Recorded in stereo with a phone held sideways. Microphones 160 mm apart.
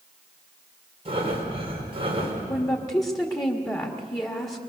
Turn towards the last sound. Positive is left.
turn(degrees=20)  # may be behind; listen again after turning